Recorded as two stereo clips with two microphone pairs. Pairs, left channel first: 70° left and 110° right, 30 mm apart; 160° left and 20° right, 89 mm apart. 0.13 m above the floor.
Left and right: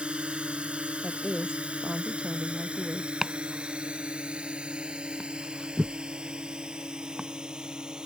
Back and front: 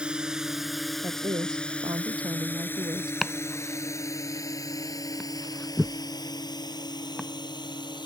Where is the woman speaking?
55° right.